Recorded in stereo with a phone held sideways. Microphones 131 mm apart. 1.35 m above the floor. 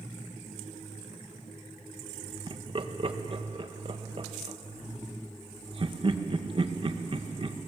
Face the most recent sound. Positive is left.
turn(degrees=-45)  # may be behind; listen again after turning